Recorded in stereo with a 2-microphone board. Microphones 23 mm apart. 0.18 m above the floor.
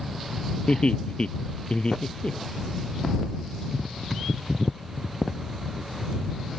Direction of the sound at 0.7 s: 50° left (ahead or behind).